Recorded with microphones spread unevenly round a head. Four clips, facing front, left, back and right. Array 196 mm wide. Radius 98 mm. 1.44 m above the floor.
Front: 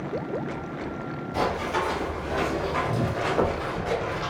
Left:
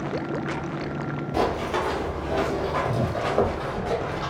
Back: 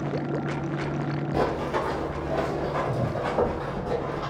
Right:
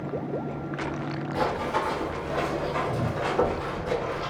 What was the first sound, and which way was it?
Running footsteps, 75° left.